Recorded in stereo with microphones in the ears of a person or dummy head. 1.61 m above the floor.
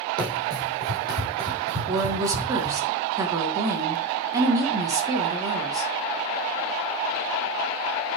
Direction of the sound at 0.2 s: 15° right (ahead or behind).